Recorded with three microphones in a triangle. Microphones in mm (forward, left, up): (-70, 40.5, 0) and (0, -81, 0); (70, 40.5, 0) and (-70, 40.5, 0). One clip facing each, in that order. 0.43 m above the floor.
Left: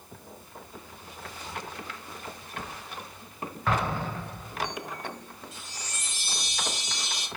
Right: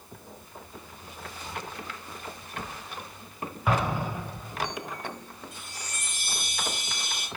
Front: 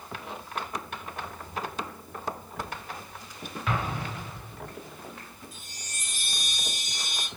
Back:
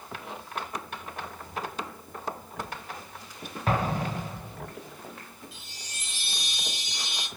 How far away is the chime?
About 1.2 m.